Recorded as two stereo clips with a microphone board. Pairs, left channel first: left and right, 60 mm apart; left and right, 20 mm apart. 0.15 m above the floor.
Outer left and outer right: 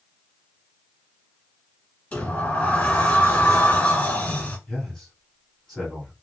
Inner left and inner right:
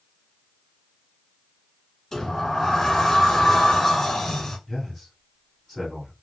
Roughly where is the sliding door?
Left.